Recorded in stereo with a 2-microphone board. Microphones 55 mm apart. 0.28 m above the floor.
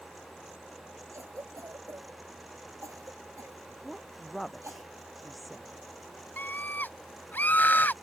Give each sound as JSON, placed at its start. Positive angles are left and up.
{"t": 1.1, "sound": "a cough", "side_deg": -70}
{"t": 3.8, "sound": "a woman speaking", "side_deg": 0}
{"t": 6.4, "sound": "a scream", "side_deg": 40}